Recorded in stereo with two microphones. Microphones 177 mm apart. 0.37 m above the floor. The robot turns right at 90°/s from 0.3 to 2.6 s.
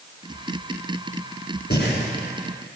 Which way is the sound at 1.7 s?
65° left (ahead or behind).